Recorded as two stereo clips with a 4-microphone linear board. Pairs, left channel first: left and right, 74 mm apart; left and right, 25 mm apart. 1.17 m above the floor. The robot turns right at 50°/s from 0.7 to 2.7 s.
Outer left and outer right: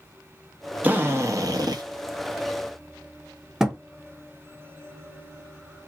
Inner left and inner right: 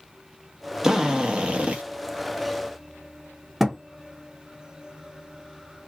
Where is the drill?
155° right, 0.8 m; by 1.8 s 110° right, 0.8 m.